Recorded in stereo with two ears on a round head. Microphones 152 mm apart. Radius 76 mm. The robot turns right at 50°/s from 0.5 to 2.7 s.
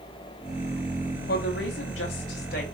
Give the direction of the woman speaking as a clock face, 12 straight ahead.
10 o'clock.